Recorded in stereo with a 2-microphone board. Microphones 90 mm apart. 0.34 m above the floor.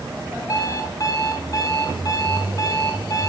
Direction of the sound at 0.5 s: 35° left (ahead or behind).